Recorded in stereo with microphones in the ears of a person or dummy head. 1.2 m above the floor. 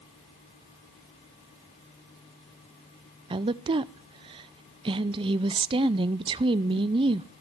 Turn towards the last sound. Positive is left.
turn(degrees=-25)  # may be behind; listen again after turning